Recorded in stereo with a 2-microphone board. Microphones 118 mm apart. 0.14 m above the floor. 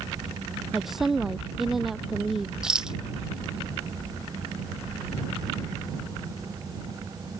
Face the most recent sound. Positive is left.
turn(degrees=-5)  # may be behind; listen again after turning